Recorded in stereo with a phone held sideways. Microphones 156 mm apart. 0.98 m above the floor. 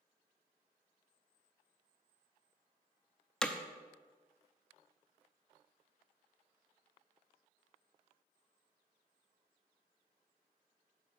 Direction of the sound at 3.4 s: 5° left (ahead or behind).